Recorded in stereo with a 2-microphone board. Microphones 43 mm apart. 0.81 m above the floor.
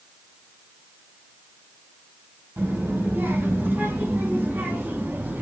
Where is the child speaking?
75° right (ahead or behind), 3.5 m; by 5.4 s 45° right (ahead or behind), 4.5 m.